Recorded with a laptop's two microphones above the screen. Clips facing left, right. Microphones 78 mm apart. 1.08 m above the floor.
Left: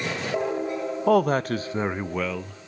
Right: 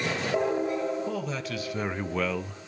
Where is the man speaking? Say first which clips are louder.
Left 12 dB; 60° left (ahead or behind), 0.7 m; by 2.7 s 15° right (ahead or behind), 0.7 m.